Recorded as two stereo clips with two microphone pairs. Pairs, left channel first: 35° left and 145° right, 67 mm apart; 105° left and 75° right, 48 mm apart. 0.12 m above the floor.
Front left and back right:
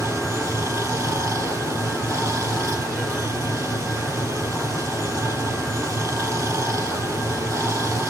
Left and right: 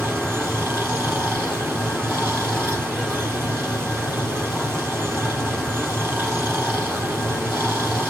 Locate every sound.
0.0 s running water: 100° right, 3 m